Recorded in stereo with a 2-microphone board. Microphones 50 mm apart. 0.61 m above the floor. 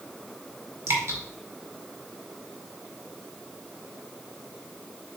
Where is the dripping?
60° right (ahead or behind), 2.0 m.